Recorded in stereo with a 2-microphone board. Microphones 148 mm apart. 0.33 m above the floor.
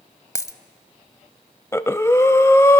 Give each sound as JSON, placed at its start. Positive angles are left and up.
{"t": 0.3, "sound": "a dropped coin", "side_deg": 25, "distance_m": 0.6}
{"t": 1.7, "sound": "breathing", "side_deg": 20, "distance_m": 0.5}